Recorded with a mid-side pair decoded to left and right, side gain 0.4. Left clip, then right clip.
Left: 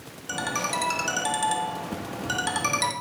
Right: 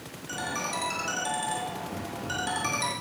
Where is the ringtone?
60° left, 1.5 m.